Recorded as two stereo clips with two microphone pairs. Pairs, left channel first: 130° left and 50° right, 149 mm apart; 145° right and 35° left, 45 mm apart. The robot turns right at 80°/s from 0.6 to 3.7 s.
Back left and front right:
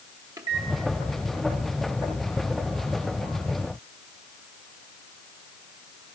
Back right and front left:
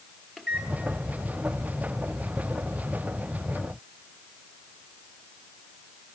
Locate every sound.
0.4 s a microwave: 60° right, 1.1 m; by 0.7 s 50° right, 1.1 m